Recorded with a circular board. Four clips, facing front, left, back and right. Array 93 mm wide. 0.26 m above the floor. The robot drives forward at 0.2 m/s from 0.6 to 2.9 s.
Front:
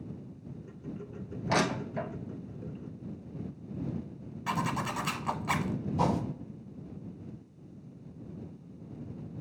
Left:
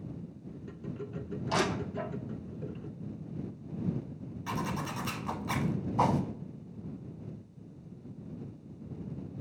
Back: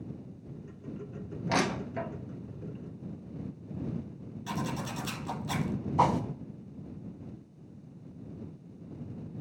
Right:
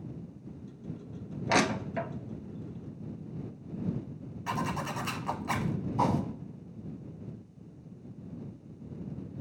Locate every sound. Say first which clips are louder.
1.5 s crushing: right 3 dB, front 1 dB; 95° right, 0.9 m; by 2.1 s 105° right, 0.9 m
4.5 s a zipper: right 2 dB, front 3 dB; 20° right, 0.7 m
6.0 s a whoosh: left 1 dB, back 4 dB; 165° left, 0.6 m